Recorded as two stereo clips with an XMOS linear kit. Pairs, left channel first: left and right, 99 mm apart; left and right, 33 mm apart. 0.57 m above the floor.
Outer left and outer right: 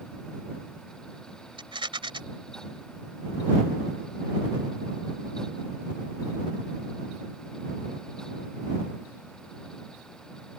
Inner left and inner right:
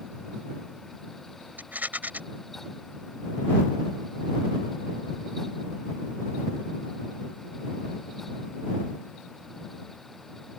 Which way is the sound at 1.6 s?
55° right (ahead or behind).